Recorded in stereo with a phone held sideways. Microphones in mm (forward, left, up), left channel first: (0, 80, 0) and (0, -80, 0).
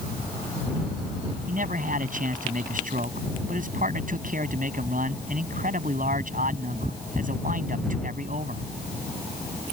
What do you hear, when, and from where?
1.5 s a man speaking: 55° right (ahead or behind)